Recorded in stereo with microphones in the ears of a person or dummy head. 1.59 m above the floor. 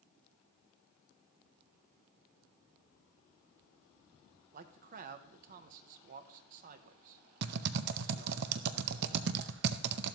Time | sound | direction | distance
4.5 | a man speaking | 50° right (ahead or behind) | 0.7 m
7.4 | typing on a keyboard | 65° right (ahead or behind) | 0.6 m